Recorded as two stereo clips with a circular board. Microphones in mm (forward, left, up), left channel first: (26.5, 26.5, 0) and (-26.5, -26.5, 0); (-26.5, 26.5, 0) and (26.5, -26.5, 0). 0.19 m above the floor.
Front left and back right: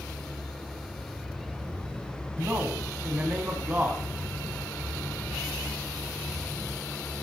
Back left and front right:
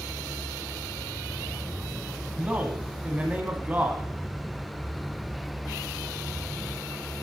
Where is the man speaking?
90° right, 1.2 m.